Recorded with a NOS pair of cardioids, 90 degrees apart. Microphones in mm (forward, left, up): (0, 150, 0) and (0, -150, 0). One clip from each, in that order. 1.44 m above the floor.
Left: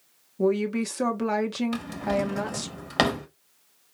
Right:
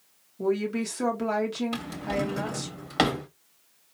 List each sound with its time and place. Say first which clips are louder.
0.4 s a woman speaking: left 3 dB; 35° left, 1.3 m
1.7 s a drawer: left 3 dB; 25° left, 1.6 m